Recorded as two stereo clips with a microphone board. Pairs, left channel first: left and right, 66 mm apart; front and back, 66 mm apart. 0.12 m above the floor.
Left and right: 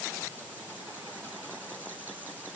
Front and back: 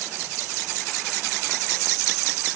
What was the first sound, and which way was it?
Only background noise.